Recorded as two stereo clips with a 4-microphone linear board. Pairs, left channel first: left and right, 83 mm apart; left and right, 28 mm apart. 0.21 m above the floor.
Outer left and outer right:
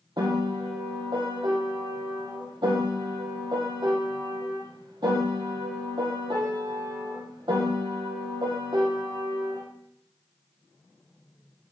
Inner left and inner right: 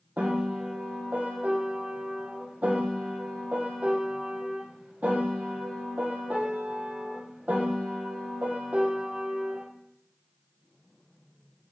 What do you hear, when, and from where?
0.2 s a piano: 65° right (ahead or behind), 3 m